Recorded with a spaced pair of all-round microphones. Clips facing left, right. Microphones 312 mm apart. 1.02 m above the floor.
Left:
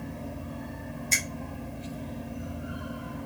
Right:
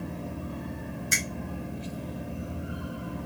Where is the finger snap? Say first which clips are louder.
Right 2 dB; 15° right (ahead or behind), 0.6 m.